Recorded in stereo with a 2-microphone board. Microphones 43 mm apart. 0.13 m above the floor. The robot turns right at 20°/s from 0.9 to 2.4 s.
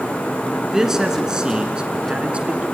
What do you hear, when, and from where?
0.7 s a man speaking: 160° right, 1.5 m; by 2.6 s 130° right, 1.5 m